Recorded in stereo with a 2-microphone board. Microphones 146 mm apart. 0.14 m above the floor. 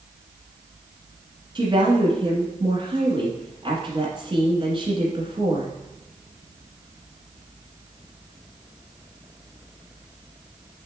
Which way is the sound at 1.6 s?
35° right (ahead or behind).